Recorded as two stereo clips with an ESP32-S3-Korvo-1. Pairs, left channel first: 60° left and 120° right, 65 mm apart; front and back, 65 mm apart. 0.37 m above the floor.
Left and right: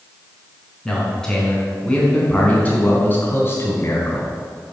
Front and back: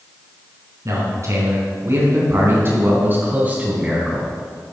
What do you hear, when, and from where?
0.8 s a man speaking: 145° left, 4.5 m; by 4.3 s 105° left, 3.5 m